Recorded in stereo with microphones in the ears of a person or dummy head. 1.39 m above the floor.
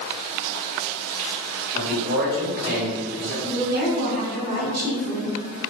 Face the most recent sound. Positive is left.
turn(degrees=-55)  # may be behind; listen again after turning